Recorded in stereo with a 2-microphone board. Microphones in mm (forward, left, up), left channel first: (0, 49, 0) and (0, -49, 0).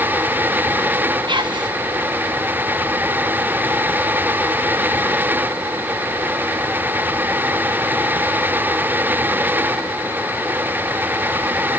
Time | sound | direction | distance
1.3 | whispering | 60° right (ahead or behind) | 1.8 m